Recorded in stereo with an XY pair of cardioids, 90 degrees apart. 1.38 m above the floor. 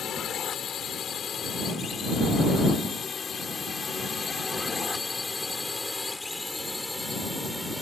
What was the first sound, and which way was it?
A drone, 70° left.